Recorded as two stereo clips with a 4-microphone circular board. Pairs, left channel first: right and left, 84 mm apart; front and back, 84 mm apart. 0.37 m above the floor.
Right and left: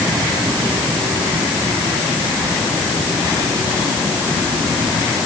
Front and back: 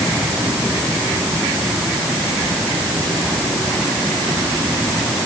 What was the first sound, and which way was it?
Only background noise.